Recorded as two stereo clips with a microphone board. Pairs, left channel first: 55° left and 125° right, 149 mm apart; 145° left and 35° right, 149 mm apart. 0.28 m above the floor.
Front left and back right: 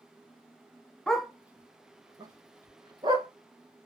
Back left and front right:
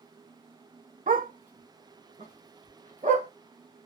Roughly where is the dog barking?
Ahead right.